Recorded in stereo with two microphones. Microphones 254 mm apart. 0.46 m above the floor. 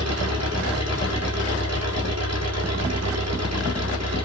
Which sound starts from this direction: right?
An engine running, at 0.0 s.